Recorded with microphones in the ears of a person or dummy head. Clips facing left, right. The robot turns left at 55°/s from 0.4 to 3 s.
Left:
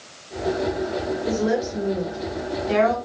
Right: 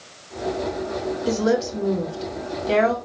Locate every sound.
1.3 s a woman speaking: 55° right, 1.5 m; by 3.0 s 150° right, 1.5 m